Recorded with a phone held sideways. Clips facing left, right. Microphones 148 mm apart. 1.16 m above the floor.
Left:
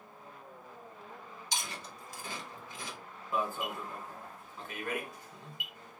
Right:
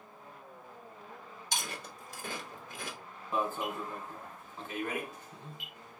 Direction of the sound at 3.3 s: 20° right (ahead or behind).